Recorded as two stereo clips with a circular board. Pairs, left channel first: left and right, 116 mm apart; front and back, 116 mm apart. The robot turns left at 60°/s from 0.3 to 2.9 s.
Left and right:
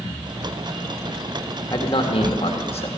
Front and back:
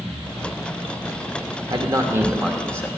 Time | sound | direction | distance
1.7 | a man speaking | 140° left | 1.6 m